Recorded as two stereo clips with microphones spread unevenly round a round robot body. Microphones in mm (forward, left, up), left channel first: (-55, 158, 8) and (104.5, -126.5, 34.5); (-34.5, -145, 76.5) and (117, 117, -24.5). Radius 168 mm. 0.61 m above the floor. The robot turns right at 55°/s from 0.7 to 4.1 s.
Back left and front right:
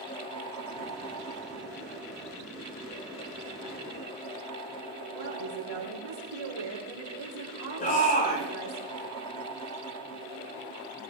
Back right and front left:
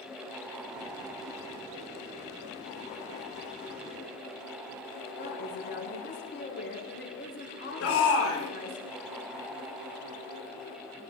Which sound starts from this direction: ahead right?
A woman speaking, at 5.1 s.